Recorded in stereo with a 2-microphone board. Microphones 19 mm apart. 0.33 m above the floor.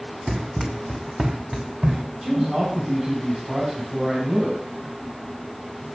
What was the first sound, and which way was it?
Running footsteps, 45° right (ahead or behind).